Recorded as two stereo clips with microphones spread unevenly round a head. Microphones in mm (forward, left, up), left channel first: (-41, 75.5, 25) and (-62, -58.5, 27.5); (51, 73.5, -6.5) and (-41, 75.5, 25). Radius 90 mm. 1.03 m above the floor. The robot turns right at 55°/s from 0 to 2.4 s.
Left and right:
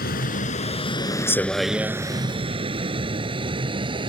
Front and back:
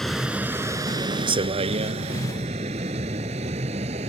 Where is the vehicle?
85° left; by 4.1 s 150° right.